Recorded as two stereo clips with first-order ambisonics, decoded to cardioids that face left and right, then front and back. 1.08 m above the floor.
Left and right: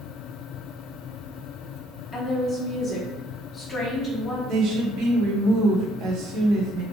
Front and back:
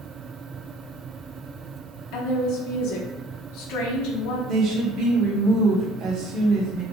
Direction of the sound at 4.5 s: 130° right.